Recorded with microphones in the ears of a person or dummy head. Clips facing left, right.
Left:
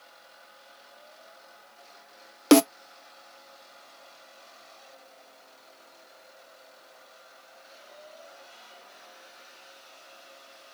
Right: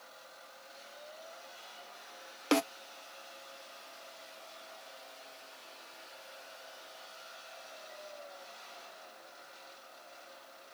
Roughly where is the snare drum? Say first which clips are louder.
Left 13 dB; left.